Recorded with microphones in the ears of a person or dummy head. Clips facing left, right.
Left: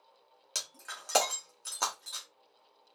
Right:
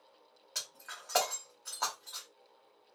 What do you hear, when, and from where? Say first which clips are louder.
0.6 s breaking glass: left 3 dB; 45° left (ahead or behind), 0.8 m